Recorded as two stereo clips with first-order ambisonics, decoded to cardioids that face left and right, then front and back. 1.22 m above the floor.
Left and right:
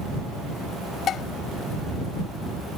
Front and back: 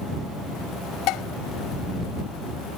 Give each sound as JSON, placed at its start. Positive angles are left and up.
{"t": 1.1, "sound": "dishes clattering", "azimuth_deg": 35}